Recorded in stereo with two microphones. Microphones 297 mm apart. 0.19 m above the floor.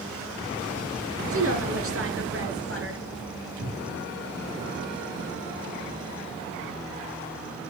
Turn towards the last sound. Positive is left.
turn(degrees=-50)  # may be behind; listen again after turning